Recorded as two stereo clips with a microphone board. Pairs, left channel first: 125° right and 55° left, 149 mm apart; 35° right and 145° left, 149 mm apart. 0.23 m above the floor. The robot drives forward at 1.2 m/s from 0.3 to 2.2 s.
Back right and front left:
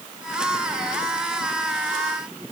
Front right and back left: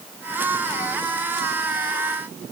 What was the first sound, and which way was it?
Only background noise.